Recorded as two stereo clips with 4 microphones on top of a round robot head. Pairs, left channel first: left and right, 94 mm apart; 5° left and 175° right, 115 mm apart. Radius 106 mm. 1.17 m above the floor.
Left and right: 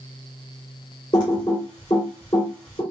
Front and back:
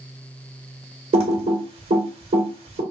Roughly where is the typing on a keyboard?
Behind left.